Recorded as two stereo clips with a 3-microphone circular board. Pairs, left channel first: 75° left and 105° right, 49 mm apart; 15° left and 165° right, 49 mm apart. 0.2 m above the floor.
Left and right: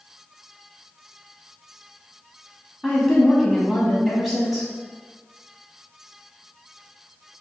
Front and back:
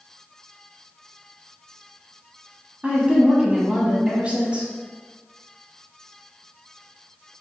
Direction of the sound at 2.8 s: 175° left.